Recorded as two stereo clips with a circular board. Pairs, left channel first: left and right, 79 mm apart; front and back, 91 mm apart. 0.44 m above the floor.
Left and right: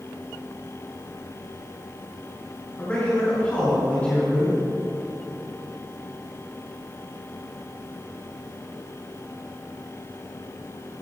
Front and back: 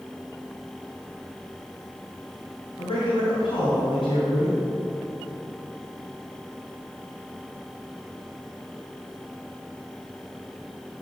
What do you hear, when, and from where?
2.8 s a man speaking: 25° left, 4 m